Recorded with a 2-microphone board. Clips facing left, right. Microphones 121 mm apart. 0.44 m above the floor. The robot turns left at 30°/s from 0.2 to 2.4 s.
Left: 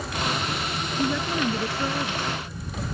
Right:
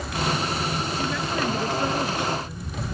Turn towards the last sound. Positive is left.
turn(degrees=-20)